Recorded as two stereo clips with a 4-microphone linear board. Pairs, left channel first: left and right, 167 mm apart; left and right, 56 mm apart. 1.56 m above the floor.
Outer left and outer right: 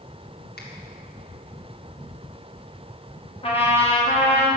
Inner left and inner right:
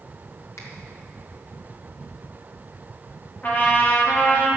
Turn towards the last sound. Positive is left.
turn(degrees=35)  # may be behind; listen again after turning